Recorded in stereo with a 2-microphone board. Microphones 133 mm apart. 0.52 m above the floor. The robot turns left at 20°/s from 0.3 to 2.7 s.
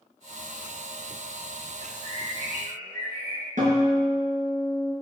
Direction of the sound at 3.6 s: 70° right (ahead or behind).